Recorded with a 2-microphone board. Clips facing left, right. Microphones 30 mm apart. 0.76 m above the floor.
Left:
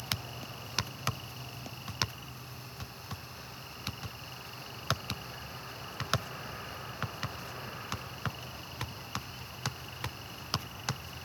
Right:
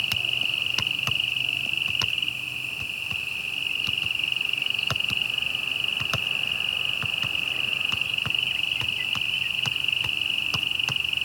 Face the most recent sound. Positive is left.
turn(degrees=-75)  # may be behind; listen again after turning